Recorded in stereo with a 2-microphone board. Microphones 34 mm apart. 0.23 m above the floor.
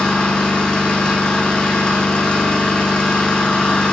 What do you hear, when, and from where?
0.0 s an engine running: 35° left (ahead or behind), 5.5 m